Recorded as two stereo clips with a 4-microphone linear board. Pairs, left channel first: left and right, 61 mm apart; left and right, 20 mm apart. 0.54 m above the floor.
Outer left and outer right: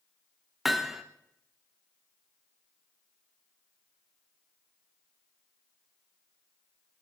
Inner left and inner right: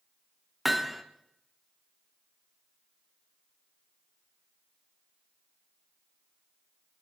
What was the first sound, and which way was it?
Hammering, 5° right (ahead or behind).